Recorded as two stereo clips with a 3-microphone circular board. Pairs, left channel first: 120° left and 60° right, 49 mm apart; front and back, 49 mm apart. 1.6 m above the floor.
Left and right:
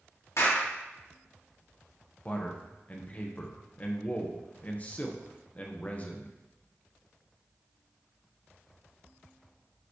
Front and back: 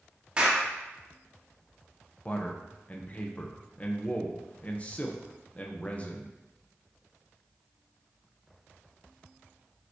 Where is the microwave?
No microwave in this recording.